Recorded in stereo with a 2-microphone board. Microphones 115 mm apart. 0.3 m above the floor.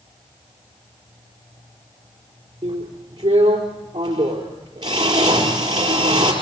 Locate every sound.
2.6 s a drill: 40° right (ahead or behind), 4.5 m